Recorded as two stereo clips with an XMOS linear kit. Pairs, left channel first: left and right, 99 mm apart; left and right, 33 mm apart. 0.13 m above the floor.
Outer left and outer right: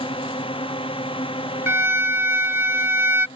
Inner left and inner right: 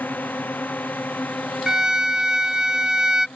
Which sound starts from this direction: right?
A violin, at 1.7 s.